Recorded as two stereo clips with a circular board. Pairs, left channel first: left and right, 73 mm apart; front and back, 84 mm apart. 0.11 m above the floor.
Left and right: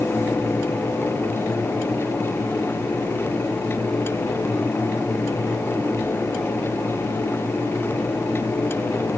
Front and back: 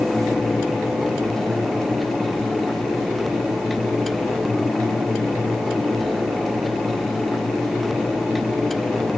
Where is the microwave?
I don't hear a microwave.